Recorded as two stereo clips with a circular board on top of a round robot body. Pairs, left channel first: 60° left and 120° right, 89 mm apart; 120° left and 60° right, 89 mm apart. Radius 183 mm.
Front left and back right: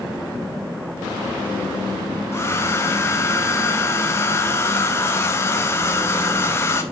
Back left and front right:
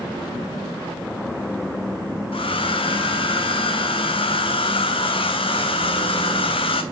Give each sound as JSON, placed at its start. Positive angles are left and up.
{"t": 2.3, "sound": "a hair dryer", "azimuth_deg": 120, "distance_m": 1.3}